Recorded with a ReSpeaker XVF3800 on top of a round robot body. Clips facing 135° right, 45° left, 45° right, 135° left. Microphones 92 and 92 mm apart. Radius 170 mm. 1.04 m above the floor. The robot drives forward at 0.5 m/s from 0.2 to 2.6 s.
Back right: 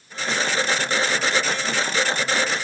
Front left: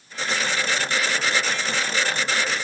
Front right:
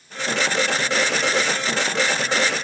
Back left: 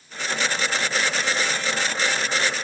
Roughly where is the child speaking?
I don't hear a child speaking.